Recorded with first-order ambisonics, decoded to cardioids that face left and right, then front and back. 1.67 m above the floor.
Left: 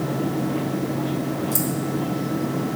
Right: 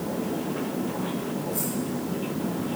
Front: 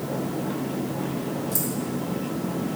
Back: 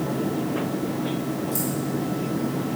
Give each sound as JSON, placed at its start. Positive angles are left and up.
{"t": 1.5, "sound": "keys jangling", "azimuth_deg": 75, "distance_m": 1.8}